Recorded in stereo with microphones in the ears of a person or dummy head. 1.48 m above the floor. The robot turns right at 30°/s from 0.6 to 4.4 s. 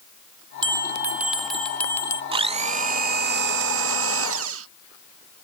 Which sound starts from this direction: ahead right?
A bell, at 0.6 s.